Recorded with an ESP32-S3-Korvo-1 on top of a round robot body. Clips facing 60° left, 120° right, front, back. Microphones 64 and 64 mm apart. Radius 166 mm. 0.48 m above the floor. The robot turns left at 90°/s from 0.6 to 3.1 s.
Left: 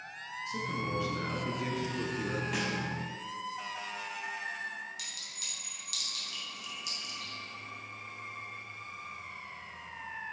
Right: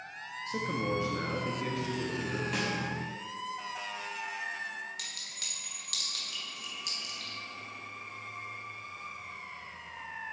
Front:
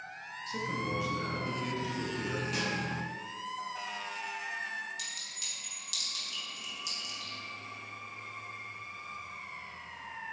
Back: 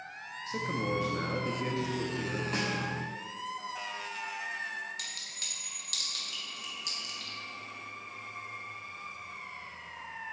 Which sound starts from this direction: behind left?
A snare drum, at 2.5 s.